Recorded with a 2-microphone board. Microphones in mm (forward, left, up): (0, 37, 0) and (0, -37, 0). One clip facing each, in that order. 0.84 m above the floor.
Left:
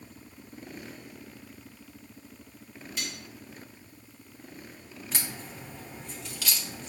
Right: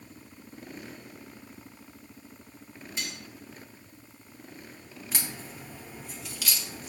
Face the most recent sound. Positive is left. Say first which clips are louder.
# even
turn(degrees=-5)  # may be behind; listen again after turning